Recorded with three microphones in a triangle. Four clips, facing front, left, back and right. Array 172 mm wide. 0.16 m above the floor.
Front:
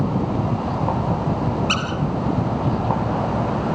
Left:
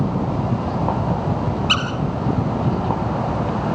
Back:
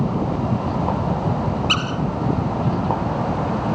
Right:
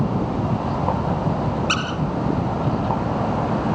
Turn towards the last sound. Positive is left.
turn(degrees=120)